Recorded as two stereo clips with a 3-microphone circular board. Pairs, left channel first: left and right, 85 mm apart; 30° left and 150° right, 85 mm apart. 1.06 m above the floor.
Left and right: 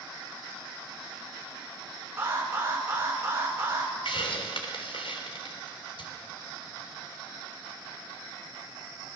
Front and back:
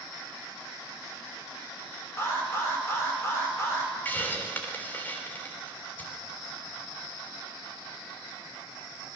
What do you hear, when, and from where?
2.2 s an alarm: 30° right, 5.5 m
4.0 s a hiss: 100° left, 3 m